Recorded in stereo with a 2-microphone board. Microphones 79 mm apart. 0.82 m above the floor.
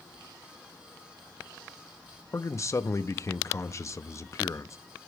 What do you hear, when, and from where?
2.3 s a man speaking: 40° left (ahead or behind), 0.6 m